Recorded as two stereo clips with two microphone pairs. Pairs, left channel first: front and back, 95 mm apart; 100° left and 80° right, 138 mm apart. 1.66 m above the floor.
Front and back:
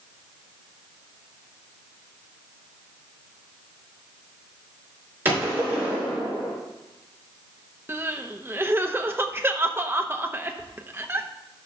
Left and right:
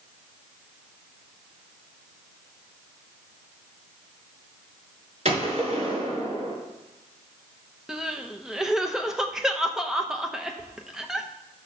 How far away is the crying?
About 0.8 m.